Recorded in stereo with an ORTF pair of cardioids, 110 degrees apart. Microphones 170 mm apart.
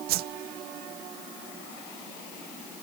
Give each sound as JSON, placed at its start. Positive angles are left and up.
{"t": 0.1, "sound": "a whoosh", "azimuth_deg": -70, "distance_m": 0.7}